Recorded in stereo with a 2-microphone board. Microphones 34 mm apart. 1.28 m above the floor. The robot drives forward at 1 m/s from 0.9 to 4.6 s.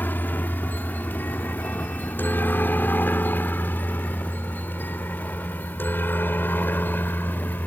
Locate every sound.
0.0 s a helicopter: 60° left (ahead or behind); by 7.7 s 70° left (ahead or behind)